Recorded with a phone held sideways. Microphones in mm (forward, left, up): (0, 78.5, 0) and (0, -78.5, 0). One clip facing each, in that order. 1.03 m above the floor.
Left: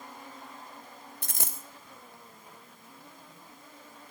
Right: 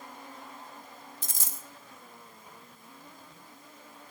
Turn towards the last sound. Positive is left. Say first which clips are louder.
# left 3 dB
turn(degrees=60)  # may be behind; listen again after turning